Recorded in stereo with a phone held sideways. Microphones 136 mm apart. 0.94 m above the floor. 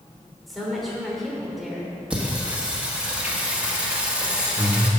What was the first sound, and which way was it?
A woman speaking, centre (ahead or behind).